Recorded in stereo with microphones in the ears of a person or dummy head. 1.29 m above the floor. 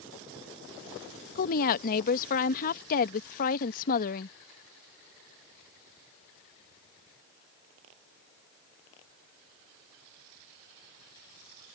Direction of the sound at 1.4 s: 50° left (ahead or behind).